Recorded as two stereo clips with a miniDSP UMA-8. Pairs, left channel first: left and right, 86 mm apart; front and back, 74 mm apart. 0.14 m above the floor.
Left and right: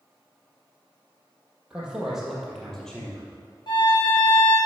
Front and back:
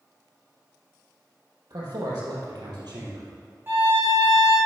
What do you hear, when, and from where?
1.7 s a man speaking: 165° right, 3.5 m; by 3.3 s 165° left, 3.5 m
3.7 s a violin: 120° left, 3.5 m